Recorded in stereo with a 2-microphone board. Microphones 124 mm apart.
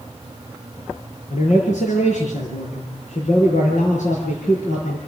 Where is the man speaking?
75° left (ahead or behind), 5.5 m.